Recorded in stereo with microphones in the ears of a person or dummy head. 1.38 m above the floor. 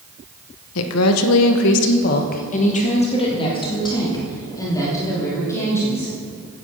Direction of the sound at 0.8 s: 80° left.